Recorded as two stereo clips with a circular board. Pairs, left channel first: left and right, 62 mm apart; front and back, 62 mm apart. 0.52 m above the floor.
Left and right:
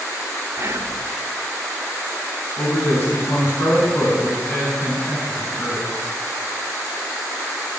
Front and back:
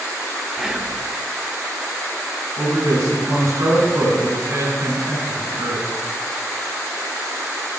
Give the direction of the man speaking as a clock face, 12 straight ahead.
7 o'clock.